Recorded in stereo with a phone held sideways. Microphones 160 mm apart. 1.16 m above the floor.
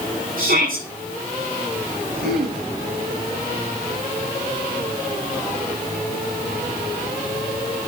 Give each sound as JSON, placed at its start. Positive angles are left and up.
{"t": 0.4, "sound": "a shout", "side_deg": -70, "distance_m": 10.0}
{"t": 2.2, "sound": "throat clearing", "side_deg": -80, "distance_m": 8.0}